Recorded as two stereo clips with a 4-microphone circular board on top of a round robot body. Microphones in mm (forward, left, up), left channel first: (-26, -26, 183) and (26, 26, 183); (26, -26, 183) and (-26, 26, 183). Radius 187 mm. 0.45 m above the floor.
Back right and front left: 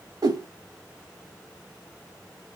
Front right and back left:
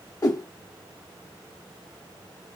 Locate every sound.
0.2 s a whoosh: 5° left, 0.6 m